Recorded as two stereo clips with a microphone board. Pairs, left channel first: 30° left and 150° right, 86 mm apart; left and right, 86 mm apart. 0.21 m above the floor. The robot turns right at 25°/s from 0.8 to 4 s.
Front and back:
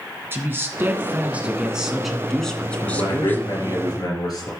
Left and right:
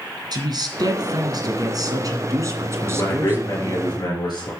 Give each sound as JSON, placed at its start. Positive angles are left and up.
{"t": 0.3, "sound": "a man speaking", "azimuth_deg": -95, "distance_m": 1.8}
{"t": 2.8, "sound": "a man speaking", "azimuth_deg": 35, "distance_m": 4.0}